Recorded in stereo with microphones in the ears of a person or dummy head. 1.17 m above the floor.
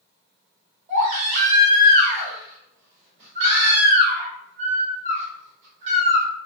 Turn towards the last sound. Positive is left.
turn(degrees=-40)  # may be behind; listen again after turning